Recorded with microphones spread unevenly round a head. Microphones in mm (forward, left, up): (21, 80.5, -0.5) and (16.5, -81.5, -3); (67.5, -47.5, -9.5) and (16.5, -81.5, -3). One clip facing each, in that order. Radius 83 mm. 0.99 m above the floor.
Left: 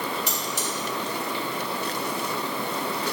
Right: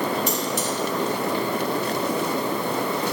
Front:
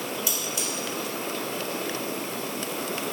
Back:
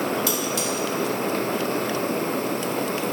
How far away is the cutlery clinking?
About 2.5 m.